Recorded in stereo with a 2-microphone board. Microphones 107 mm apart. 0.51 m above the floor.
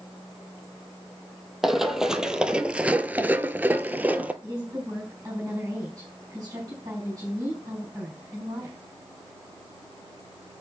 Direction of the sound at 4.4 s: 30° right (ahead or behind).